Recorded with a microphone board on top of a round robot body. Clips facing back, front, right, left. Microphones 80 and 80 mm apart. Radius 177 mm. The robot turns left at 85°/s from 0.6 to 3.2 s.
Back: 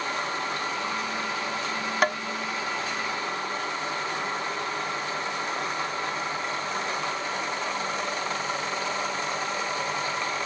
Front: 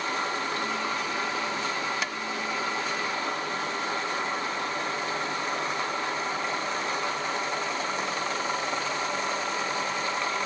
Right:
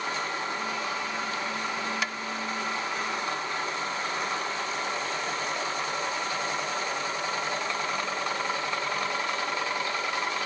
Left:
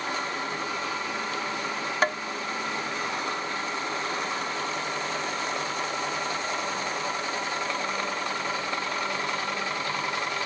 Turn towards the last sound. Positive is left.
turn(degrees=40)